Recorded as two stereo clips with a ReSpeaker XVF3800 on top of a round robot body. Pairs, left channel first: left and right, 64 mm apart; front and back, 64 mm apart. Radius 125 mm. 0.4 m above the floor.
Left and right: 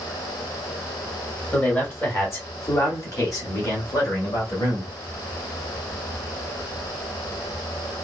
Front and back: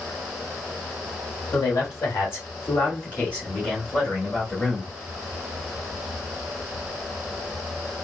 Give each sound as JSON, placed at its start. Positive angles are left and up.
{"t": 1.5, "sound": "a man speaking", "azimuth_deg": 35, "distance_m": 1.7}